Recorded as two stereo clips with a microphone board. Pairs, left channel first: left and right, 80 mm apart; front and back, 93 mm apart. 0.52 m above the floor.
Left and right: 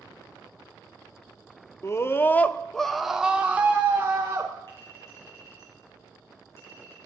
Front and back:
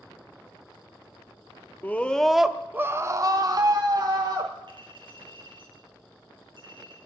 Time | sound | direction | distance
1.8 | a scream | 60° left | 0.8 m
4.7 | a clink | 140° left | 5 m